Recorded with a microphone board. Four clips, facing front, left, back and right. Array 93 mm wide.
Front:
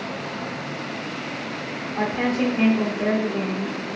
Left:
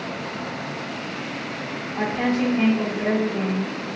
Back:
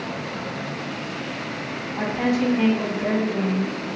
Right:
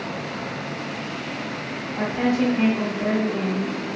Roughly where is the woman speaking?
Ahead.